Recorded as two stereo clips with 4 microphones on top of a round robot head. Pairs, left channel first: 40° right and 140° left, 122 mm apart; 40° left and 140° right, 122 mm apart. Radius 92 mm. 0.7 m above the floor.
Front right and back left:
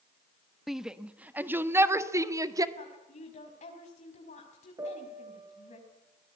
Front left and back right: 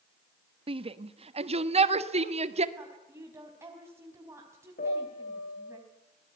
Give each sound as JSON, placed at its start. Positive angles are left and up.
{"t": 0.7, "sound": "a shout", "azimuth_deg": -135, "distance_m": 1.3}
{"t": 2.8, "sound": "a woman speaking", "azimuth_deg": -70, "distance_m": 4.5}
{"t": 4.8, "sound": "a piano", "azimuth_deg": 70, "distance_m": 5.0}